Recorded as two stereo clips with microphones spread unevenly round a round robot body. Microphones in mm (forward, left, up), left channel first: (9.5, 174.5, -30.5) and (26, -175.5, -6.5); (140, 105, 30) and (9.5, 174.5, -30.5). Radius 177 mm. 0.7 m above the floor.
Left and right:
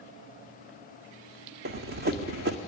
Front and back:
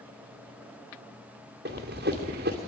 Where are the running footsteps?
150° right, 1.9 m.